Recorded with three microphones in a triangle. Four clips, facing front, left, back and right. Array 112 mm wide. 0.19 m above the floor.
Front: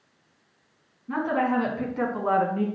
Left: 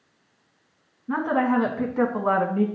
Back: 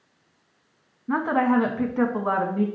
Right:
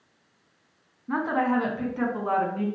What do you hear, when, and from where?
1.1 s a woman speaking: 170° left, 1.6 m; by 2.7 s 105° left, 1.7 m